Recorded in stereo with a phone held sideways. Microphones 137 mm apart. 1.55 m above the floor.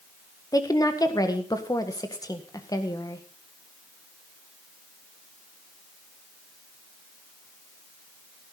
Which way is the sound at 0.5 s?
25° left (ahead or behind).